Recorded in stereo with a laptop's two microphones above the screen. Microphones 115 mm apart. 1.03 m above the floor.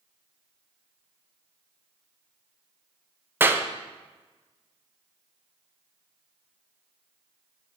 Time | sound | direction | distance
3.4 | a clap | 20° right (ahead or behind) | 0.5 m